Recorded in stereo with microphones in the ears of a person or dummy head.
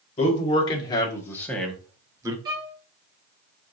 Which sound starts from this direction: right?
A violin, at 2.5 s.